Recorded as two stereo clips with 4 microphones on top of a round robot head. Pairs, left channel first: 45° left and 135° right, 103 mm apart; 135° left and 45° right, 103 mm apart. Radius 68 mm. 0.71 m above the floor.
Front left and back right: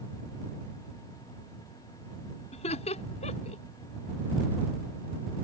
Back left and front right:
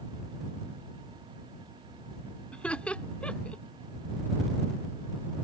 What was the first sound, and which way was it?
Laughter, 55° left.